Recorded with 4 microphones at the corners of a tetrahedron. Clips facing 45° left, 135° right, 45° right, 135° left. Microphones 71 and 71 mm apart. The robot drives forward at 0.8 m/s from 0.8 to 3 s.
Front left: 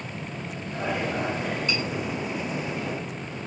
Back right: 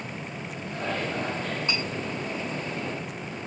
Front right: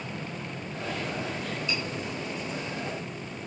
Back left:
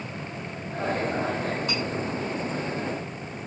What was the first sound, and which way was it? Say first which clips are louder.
Cutlery clinking: front left 1 dB, back left 2 dB; 165° left.